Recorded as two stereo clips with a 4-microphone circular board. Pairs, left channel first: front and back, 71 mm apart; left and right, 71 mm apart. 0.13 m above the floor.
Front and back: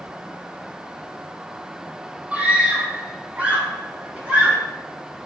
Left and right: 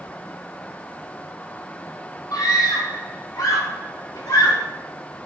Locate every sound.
2.3 s a scream: 115° left, 4 m